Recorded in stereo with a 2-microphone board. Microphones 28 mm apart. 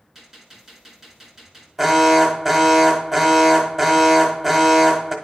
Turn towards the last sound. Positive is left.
turn(degrees=-10)  # may be behind; listen again after turning